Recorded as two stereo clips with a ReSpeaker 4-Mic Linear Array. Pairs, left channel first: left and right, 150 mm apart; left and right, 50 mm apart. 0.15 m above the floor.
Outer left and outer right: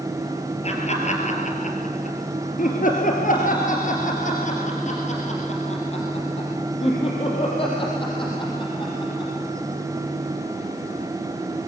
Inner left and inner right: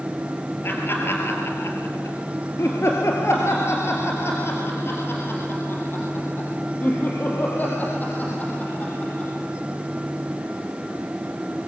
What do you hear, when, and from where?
0.6 s laughter: 45° left (ahead or behind), 2.5 m; by 9.5 s 30° left (ahead or behind), 5 m